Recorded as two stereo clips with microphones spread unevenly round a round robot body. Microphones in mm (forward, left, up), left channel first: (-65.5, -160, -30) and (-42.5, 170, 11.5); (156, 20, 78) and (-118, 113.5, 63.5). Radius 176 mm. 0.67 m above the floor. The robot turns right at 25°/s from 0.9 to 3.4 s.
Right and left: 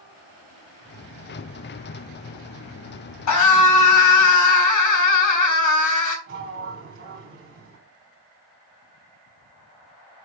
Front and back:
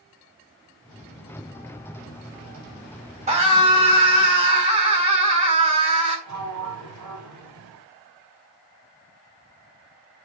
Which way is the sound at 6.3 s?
140° left.